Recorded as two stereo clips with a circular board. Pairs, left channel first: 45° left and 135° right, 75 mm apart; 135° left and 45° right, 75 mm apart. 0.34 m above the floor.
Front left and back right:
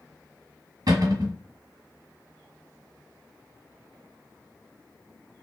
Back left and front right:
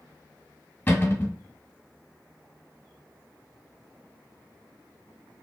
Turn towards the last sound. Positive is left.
turn(degrees=-165)